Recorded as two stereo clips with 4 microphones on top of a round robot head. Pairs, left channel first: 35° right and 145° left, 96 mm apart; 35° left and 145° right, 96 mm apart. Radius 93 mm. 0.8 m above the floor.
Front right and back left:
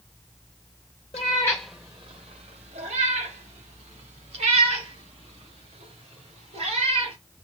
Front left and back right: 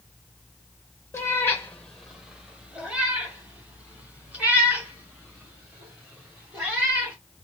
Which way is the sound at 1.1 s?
25° right.